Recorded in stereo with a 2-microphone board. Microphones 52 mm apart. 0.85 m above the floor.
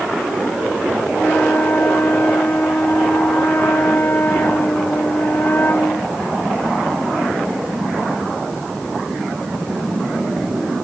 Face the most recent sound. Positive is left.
turn(degrees=40)  # may be behind; listen again after turning